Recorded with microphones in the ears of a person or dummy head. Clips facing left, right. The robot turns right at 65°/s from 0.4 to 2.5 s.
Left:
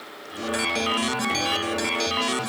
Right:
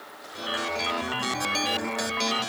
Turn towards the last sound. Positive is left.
No sound to turn to.